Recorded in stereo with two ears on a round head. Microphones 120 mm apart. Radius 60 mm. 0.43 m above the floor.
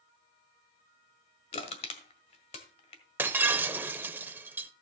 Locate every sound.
1.5 s crushing: 50° left (ahead or behind), 1.5 m
3.2 s breaking glass: 15° right (ahead or behind), 0.6 m